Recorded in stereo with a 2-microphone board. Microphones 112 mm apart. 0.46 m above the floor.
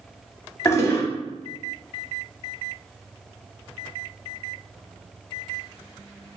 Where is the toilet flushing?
25° left (ahead or behind), 0.7 m.